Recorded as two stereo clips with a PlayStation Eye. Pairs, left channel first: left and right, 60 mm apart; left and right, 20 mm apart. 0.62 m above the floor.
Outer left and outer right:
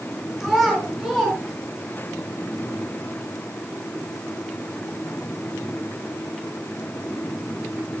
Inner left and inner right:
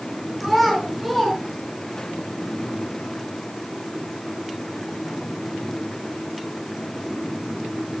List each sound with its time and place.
0.4 s a child speaking: centre (ahead or behind), 4.5 m; by 2.1 s 20° left (ahead or behind), 3 m